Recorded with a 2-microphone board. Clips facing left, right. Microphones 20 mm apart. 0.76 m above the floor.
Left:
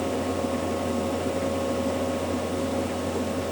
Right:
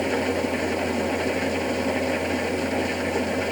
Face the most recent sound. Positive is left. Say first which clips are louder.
# right 3 dB
turn(degrees=-55)  # may be behind; listen again after turning